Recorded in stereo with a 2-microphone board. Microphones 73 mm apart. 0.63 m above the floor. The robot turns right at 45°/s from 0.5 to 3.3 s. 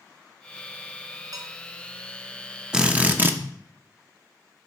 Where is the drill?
10° right (ahead or behind), 0.8 m; by 3.4 s 30° right (ahead or behind), 0.8 m.